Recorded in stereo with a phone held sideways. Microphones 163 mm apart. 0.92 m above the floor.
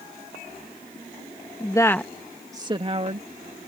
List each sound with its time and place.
1.6 s a woman speaking: 30° left (ahead or behind); by 3.7 s 55° right (ahead or behind)